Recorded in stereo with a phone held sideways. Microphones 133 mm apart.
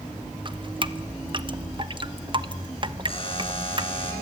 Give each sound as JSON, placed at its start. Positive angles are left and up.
{"t": 0.5, "sound": "dripping", "side_deg": -40, "distance_m": 0.8}
{"t": 3.1, "sound": "a buzzer", "side_deg": 45, "distance_m": 7.5}